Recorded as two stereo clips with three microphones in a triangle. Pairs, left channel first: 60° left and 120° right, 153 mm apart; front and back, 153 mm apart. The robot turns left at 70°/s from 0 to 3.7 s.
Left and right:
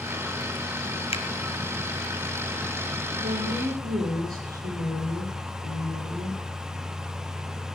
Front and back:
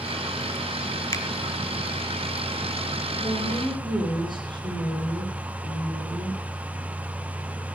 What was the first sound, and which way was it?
A finger snap, 55° left.